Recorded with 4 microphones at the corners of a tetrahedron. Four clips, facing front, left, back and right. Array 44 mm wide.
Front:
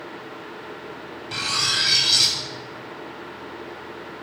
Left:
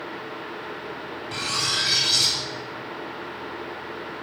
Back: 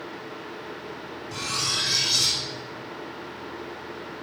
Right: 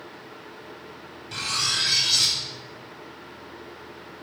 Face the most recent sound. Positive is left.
turn(degrees=10)